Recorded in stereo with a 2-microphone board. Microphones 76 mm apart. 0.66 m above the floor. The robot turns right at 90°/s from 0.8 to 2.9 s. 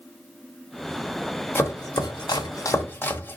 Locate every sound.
1.6 s chopping: 30° left (ahead or behind), 0.9 m; by 3.4 s 25° left (ahead or behind), 0.9 m